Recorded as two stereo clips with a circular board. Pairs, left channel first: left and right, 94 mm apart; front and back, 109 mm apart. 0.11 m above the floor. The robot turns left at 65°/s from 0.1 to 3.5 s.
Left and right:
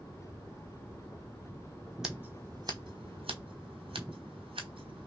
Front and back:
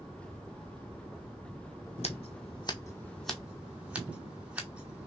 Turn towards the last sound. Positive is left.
turn(degrees=-100)